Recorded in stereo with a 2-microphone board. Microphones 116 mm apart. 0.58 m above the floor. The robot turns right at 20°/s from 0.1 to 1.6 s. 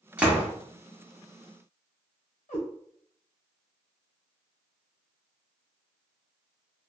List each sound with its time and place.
0.2 s a door slam: 10° right (ahead or behind), 0.9 m; by 0.5 s 15° right (ahead or behind), 0.9 m
2.5 s a cat meowing: 85° left, 1.5 m